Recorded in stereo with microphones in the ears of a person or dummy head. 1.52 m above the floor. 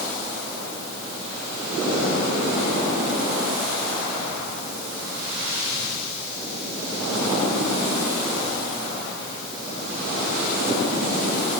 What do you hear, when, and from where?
Only background noise.